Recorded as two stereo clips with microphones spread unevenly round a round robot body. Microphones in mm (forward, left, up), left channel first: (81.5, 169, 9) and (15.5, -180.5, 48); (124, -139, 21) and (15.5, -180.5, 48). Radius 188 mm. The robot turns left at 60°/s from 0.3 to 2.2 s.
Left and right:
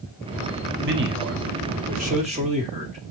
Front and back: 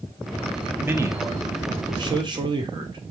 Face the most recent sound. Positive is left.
turn(degrees=-160)